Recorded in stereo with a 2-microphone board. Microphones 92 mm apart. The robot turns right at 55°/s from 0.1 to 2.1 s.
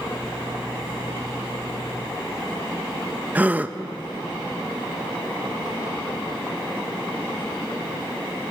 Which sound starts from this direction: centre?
A gasp, at 3.4 s.